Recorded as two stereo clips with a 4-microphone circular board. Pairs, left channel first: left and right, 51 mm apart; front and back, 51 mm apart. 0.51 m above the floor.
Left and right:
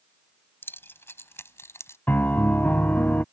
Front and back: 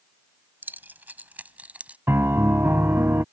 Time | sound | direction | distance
0.6 | keys jangling | 130° left | ?
2.1 | a piano | 140° left | ?